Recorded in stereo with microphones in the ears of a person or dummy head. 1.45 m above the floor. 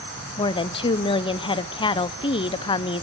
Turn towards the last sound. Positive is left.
turn(degrees=30)  # may be behind; listen again after turning